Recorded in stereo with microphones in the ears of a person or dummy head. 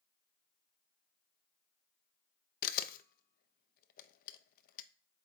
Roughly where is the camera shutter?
Left.